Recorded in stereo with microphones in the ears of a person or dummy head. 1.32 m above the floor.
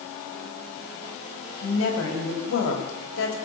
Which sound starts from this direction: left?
A woman speaking, at 1.6 s.